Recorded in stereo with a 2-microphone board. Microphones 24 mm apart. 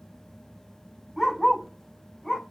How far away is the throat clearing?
I don't hear throat clearing.